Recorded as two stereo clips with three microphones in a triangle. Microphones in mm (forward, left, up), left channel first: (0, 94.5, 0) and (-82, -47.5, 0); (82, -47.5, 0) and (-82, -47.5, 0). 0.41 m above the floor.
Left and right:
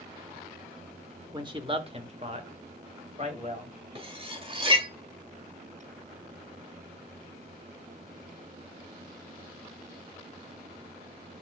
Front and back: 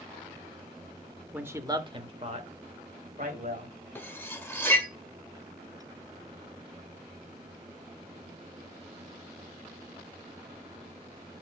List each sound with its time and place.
1.3 s a man speaking: 110° right, 0.9 m; by 3.7 s 160° right, 2.0 m
4.0 s cutlery clinking: 75° right, 0.9 m